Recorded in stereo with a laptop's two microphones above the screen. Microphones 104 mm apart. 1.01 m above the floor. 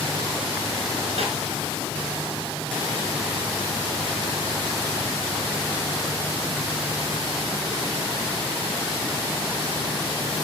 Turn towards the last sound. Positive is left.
turn(degrees=-75)  # may be behind; listen again after turning